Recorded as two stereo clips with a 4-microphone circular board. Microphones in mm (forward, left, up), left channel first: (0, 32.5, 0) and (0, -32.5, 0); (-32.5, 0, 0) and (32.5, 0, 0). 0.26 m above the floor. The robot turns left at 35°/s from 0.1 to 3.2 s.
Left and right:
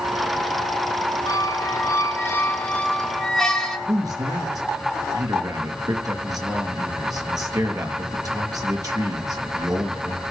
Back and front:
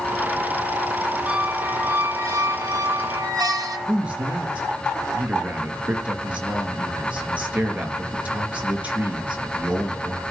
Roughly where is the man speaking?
Right.